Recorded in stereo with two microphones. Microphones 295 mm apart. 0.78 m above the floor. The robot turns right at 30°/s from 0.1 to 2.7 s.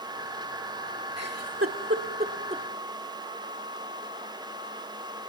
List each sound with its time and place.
1.2 s a giggle: 60° right (ahead or behind), 1.7 m; by 2.6 s 20° right (ahead or behind), 1.7 m